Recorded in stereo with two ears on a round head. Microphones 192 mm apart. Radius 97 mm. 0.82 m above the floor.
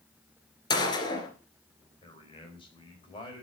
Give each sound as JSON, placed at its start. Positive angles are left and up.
{"t": 0.7, "sound": "a gunshot", "side_deg": 20, "distance_m": 2.5}
{"t": 2.0, "sound": "a man speaking", "side_deg": 25, "distance_m": 4.0}